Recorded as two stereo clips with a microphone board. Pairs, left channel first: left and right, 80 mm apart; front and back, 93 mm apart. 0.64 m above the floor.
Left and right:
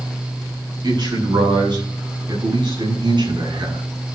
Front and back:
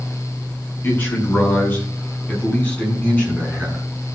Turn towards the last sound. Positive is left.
turn(degrees=-75)